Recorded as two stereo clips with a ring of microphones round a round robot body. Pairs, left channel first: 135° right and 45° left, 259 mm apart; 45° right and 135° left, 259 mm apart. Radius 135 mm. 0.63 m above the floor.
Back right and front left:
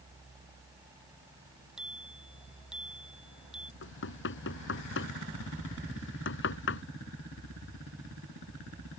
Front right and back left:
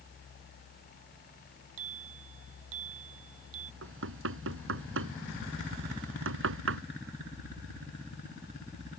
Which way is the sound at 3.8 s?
Straight behind.